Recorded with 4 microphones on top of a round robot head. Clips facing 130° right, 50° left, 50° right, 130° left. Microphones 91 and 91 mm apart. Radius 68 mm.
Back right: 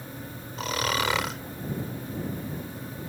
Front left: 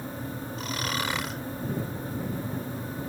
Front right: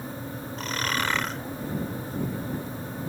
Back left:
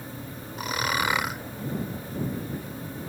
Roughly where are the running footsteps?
No running footsteps in this recording.